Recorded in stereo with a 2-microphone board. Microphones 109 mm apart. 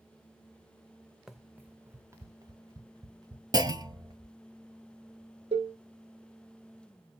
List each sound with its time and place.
1.3 s running footsteps: 5° right (ahead or behind), 0.6 m; by 4.3 s 40° right (ahead or behind), 2 m
3.5 s a clunk: 35° right (ahead or behind), 0.6 m
5.5 s a cowbell: 65° right (ahead or behind), 1.2 m